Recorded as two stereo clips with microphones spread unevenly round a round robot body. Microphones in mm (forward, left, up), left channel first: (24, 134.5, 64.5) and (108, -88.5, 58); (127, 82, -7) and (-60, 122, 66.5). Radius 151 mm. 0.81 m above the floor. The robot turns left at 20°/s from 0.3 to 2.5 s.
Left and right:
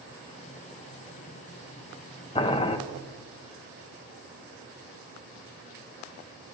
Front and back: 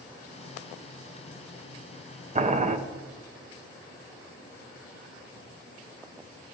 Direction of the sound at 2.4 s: 120° left.